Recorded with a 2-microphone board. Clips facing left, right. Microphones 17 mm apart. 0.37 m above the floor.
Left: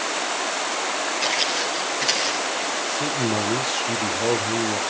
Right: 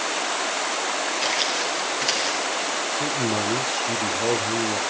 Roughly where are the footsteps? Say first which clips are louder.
Left 2 dB; centre.